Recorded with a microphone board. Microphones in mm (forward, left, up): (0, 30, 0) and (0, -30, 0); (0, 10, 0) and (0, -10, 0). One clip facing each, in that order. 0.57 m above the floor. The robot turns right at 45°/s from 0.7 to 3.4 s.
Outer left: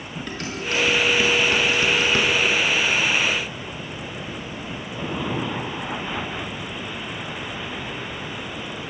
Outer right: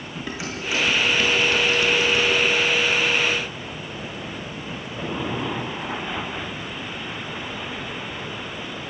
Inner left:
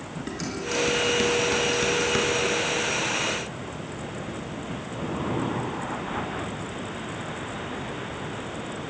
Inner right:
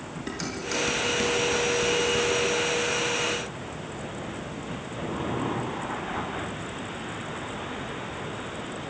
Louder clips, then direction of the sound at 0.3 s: Even, inner left 1 dB; 10° right (ahead or behind).